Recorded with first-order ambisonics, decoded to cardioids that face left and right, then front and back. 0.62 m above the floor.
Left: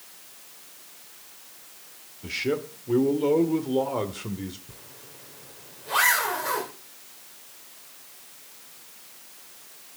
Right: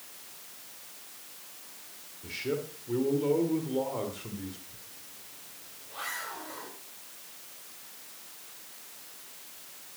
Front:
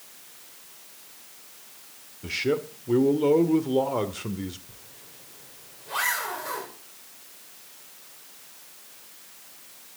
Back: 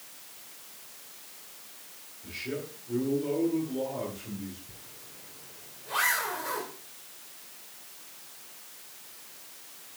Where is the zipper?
90° left, 2 m.